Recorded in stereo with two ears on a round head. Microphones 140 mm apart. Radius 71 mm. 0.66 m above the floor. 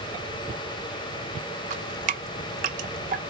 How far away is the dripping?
About 0.7 m.